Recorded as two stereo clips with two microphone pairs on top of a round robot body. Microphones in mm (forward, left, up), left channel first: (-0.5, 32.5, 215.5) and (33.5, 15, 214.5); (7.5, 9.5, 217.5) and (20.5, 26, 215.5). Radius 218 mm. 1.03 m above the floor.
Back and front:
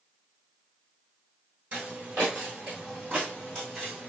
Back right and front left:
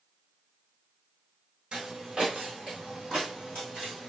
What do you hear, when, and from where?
1.7 s footsteps: 15° right, 1.4 m; by 4.1 s 120° right, 1.8 m